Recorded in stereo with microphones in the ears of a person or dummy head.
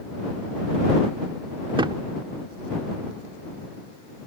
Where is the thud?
25° right (ahead or behind).